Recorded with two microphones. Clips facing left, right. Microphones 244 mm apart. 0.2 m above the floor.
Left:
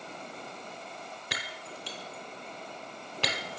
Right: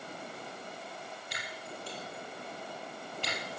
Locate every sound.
1.3 s breaking glass: 80° left, 1.5 m